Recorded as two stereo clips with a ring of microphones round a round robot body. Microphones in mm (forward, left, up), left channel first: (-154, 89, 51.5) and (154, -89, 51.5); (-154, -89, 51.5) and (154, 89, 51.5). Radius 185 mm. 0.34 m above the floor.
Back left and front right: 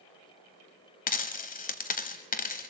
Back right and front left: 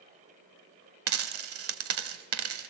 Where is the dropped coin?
80° left, 0.8 m.